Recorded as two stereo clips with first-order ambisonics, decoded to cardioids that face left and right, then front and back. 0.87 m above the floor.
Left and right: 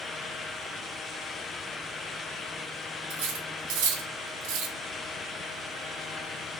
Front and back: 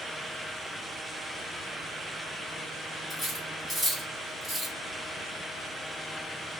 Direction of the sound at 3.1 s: 85° right.